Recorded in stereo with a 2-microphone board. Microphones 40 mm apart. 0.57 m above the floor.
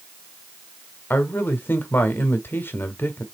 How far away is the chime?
I don't hear a chime.